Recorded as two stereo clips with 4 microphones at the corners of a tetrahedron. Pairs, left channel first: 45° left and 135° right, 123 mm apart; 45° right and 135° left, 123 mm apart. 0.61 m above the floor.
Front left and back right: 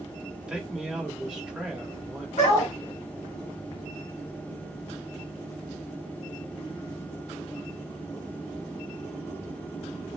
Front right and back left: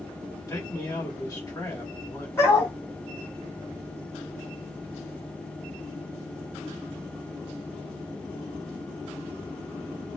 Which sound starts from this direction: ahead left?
A dog barking, at 2.4 s.